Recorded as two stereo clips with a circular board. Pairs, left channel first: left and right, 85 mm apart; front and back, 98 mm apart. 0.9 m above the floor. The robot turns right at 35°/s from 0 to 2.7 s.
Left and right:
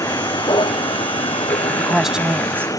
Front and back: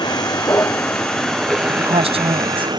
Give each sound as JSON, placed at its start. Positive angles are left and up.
{"t": 0.0, "sound": "a vehicle", "azimuth_deg": 45}
{"t": 1.7, "sound": "a woman speaking", "azimuth_deg": 175}